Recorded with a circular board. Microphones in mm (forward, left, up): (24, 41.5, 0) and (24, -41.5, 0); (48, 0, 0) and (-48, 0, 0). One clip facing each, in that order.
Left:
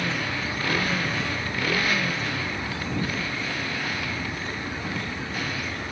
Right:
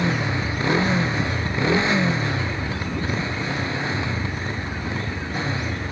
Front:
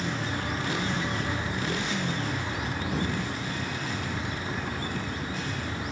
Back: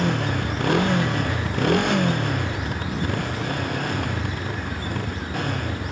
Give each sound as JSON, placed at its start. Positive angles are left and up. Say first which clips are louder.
{"t": 0.0, "sound": "a motorcycle", "louder": "right 5 dB, back 7 dB", "azimuth_deg": -155}